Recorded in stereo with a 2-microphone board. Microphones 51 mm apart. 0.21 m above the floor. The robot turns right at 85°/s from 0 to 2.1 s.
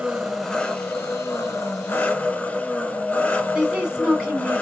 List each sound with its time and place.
0.0 s an engine running: 30° right, 1.1 m; by 4.6 s 150° left, 1.1 m
3.5 s a woman speaking: 15° right (ahead or behind), 1.8 m